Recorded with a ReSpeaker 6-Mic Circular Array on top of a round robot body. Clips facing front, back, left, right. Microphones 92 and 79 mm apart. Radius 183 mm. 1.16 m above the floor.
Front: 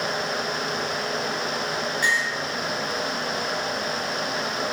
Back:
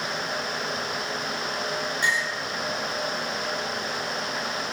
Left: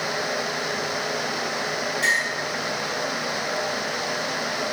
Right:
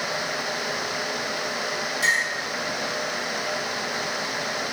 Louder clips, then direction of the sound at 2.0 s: Front 2 dB, even; 105° right.